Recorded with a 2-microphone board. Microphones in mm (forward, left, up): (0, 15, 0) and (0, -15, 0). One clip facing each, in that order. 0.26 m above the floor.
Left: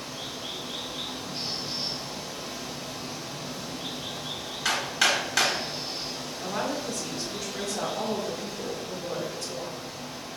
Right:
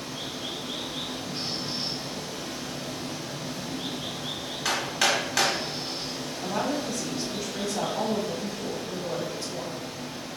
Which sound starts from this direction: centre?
Hammering, at 4.7 s.